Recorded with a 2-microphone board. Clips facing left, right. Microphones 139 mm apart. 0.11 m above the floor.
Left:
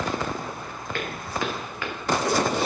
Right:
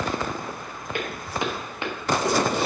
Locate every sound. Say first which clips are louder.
0.9 s footsteps: right 1 dB; 15° right (ahead or behind), 3 m; by 2.7 s 35° right (ahead or behind), 2.5 m